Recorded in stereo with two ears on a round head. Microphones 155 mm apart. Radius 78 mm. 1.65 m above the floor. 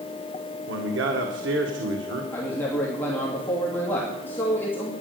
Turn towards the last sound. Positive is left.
turn(degrees=10)  # may be behind; listen again after turning